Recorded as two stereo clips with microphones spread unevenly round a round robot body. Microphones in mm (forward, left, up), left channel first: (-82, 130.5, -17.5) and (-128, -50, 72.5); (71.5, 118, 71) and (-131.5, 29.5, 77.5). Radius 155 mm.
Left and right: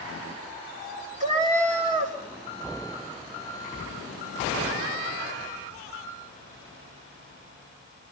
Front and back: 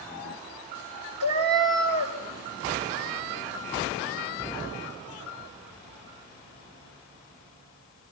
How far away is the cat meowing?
About 1.8 m.